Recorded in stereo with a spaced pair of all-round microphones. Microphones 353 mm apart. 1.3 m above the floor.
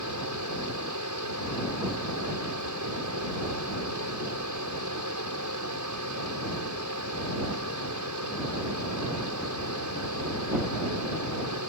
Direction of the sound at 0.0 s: 55° right (ahead or behind).